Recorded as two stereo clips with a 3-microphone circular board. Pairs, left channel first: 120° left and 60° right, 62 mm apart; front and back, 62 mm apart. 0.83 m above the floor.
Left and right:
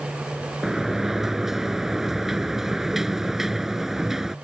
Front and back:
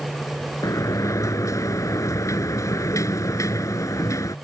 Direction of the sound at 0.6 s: 20° left.